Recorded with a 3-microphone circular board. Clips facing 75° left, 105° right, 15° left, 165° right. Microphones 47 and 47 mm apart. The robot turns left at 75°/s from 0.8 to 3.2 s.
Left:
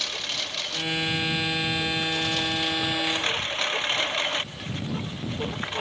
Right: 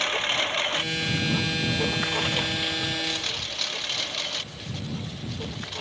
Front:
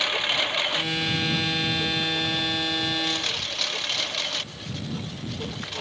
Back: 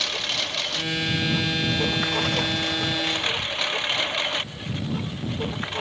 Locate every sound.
0.0 s a lawn mower: 55° right; by 5.8 s 130° left